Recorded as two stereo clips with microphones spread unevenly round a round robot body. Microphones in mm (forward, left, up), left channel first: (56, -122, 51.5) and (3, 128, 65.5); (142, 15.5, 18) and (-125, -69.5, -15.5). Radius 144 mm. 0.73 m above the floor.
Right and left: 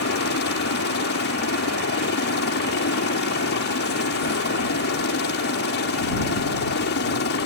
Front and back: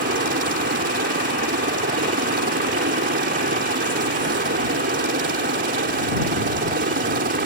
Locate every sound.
0.0 s a helicopter: 115° right